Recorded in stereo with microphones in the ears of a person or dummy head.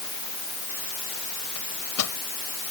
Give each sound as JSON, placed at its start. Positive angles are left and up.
{"t": 1.6, "sound": "a microwave", "side_deg": 80}